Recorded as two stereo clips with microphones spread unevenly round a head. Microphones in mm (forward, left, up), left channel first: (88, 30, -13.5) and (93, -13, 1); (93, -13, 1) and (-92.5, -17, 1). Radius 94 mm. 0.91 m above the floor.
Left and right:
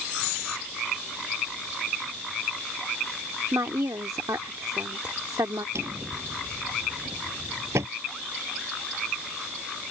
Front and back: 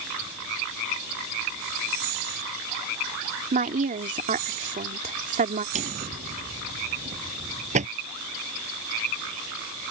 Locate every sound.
3.5 s a woman speaking: 130° right
5.8 s a drawer: 125° right